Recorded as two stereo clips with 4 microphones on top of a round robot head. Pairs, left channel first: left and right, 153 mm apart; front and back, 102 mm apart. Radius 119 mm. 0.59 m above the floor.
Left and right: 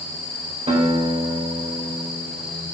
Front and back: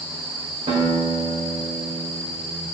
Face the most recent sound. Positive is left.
turn(degrees=-135)